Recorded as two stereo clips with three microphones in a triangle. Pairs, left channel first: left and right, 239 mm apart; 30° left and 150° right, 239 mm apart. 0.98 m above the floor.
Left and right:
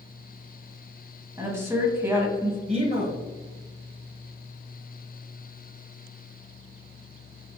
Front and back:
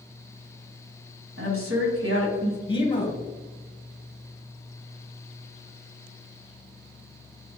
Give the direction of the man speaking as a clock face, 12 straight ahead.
1 o'clock.